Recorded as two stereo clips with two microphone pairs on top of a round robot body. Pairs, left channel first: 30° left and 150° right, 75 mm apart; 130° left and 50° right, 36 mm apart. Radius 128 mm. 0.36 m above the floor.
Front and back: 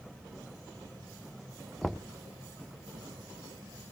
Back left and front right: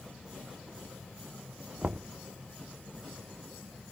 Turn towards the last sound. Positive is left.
turn(degrees=-40)